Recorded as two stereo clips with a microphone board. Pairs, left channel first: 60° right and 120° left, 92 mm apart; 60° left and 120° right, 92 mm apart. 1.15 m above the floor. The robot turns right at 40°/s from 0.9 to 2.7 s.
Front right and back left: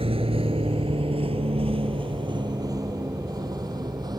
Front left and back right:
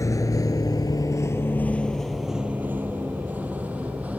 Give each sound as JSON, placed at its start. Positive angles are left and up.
{"t": 0.0, "sound": "a vehicle", "azimuth_deg": 115}